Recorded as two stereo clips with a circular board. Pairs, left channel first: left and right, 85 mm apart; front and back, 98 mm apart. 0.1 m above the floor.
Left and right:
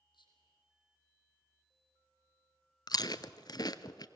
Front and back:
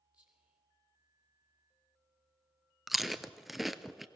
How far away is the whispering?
About 3.5 m.